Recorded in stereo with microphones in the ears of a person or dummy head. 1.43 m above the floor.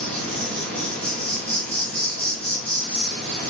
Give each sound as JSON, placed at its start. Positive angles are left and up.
{"t": 0.0, "sound": "an insect", "side_deg": 10, "distance_m": 0.8}